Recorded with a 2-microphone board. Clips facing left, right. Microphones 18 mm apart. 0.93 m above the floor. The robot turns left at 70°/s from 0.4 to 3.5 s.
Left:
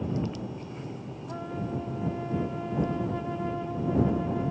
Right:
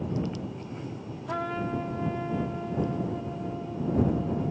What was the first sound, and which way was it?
A trumpet, 90° right.